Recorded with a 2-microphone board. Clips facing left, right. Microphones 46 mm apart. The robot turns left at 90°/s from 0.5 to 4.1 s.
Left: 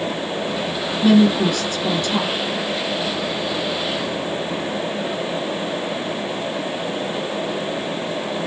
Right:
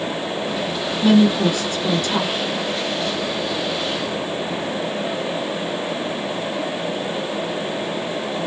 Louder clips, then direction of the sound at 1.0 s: Left 1 dB; 20° left.